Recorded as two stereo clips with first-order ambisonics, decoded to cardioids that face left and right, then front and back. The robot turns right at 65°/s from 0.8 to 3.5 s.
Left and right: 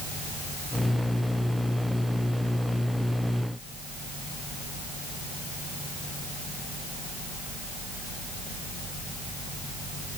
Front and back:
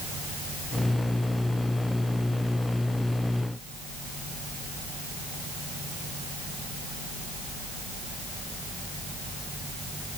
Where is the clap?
I don't hear a clap.